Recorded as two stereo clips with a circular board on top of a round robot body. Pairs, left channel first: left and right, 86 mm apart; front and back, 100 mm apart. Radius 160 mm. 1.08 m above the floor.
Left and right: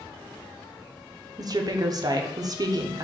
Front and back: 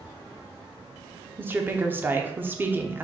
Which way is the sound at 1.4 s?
115° right.